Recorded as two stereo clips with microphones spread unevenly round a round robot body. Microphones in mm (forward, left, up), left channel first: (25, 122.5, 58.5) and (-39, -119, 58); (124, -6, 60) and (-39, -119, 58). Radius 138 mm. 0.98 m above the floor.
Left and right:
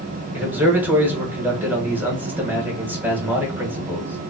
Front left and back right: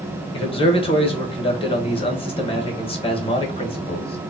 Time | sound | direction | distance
0.3 | a man speaking | 25° right | 1.1 m